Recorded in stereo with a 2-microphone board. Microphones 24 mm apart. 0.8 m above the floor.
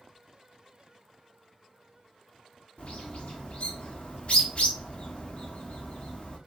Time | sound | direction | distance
2.8 | a bird | 55° left (ahead or behind) | 1.2 m